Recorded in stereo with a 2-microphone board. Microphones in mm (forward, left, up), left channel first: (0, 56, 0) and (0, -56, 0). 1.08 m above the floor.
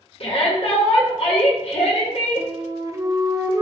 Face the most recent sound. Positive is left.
turn(degrees=-30)  # may be behind; listen again after turning